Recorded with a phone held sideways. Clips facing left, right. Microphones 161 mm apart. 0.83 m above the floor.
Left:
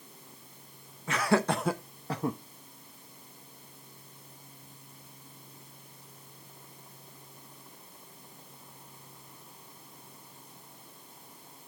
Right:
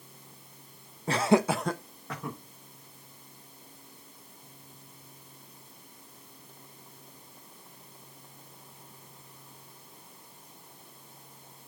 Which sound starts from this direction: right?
Laughter, at 1.1 s.